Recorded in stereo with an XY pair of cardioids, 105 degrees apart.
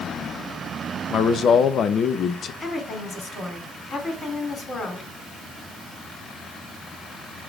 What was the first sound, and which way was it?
A man speaking, 55° left.